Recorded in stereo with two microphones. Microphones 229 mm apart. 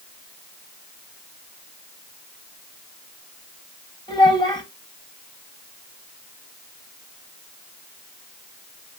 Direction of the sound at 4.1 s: 20° left (ahead or behind).